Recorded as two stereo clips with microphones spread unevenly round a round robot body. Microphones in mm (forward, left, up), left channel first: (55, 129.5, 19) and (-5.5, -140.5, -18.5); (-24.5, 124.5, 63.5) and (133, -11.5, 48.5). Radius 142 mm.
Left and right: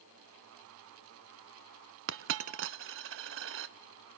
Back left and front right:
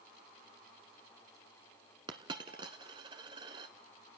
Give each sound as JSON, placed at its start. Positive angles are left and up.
{"t": 2.1, "sound": "a dropped coin", "azimuth_deg": -110, "distance_m": 0.7}